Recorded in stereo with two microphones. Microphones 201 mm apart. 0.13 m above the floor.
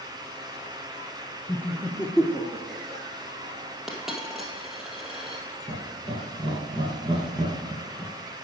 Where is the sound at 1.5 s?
15° left (ahead or behind), 1.4 m; by 3.0 s 40° right (ahead or behind), 1.7 m.